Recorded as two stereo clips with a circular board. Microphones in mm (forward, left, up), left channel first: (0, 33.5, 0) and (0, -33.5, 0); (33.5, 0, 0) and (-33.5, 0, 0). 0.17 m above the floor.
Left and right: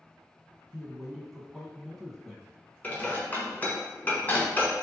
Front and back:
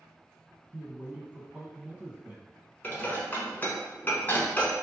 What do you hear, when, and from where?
0.7 s a man speaking: 175° left, 1.2 m
2.8 s dishes clattering: 45° left, 1.2 m